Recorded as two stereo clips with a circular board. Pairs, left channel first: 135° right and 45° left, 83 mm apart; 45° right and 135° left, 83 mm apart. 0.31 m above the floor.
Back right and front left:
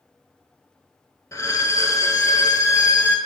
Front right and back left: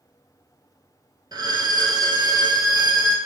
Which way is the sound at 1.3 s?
170° left.